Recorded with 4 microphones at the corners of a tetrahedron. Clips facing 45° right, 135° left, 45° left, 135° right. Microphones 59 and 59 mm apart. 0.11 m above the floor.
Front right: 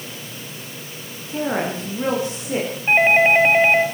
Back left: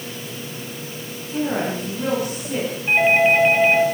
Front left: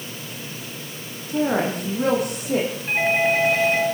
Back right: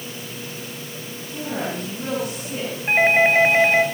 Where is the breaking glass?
No breaking glass in this recording.